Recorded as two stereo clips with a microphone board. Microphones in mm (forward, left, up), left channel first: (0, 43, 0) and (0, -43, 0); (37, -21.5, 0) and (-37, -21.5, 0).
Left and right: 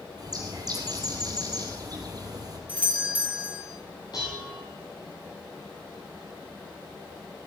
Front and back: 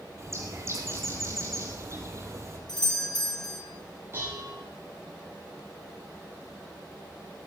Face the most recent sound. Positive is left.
turn(degrees=125)